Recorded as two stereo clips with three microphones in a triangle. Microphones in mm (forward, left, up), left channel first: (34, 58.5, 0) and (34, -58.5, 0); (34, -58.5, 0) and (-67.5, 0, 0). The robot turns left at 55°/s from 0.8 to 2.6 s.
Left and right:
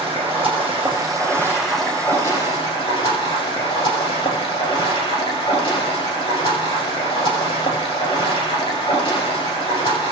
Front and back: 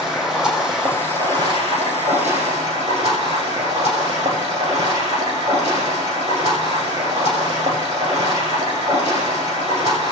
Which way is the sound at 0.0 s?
125° right.